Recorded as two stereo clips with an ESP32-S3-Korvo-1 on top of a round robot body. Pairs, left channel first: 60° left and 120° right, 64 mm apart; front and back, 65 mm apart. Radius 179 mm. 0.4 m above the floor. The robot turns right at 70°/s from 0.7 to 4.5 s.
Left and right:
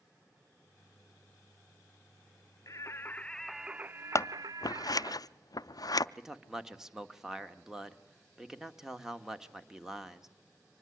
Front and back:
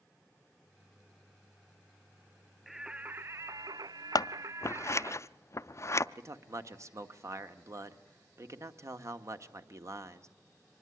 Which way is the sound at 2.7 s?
90° left.